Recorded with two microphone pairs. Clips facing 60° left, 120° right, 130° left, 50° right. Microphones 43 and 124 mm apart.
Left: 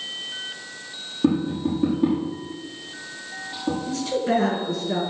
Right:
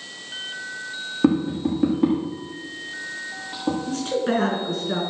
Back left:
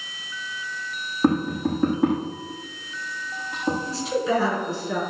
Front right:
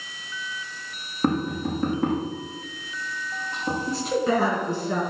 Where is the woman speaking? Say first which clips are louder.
Left 2 dB, front right 3 dB; 80° right, 5 m.